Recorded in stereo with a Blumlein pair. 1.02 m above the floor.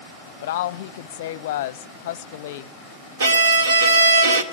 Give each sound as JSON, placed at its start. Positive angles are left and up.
{"t": 0.4, "sound": "a woman speaking", "azimuth_deg": 55, "distance_m": 0.6}
{"t": 3.2, "sound": "a violin", "azimuth_deg": -65, "distance_m": 1.8}